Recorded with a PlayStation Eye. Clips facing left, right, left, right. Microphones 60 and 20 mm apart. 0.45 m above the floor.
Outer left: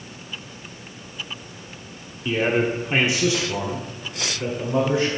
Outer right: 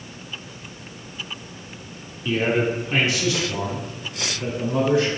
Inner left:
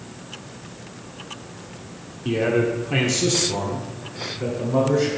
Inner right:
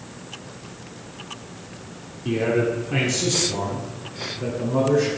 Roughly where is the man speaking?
Centre.